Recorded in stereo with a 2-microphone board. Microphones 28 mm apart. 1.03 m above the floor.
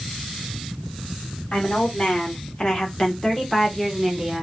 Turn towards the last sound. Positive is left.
turn(degrees=-15)  # may be behind; listen again after turning